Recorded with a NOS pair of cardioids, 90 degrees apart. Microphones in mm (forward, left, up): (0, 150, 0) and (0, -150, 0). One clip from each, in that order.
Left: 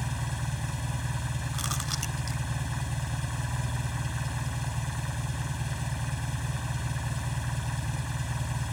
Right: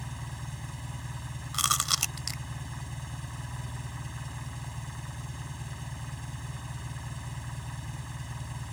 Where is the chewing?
55° right.